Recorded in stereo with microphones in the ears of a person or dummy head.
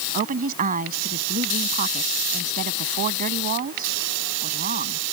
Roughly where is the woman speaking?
Right.